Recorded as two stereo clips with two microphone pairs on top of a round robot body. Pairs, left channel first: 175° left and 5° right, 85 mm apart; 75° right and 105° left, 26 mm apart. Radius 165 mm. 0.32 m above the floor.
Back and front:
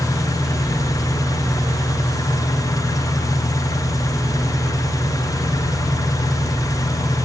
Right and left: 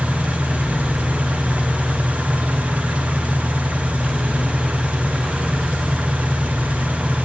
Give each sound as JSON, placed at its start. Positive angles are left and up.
{"t": 0.0, "sound": "an engine running", "azimuth_deg": 130, "distance_m": 2.0}